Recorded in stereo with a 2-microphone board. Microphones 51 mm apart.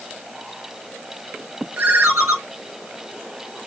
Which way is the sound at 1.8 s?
50° right (ahead or behind).